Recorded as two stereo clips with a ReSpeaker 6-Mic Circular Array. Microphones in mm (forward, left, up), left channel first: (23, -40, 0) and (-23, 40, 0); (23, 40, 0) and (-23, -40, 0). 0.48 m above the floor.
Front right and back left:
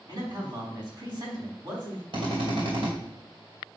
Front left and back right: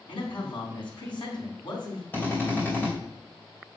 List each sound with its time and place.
0.1 s a man speaking: 80° left, 3.5 m
2.1 s a drill: 125° left, 2.5 m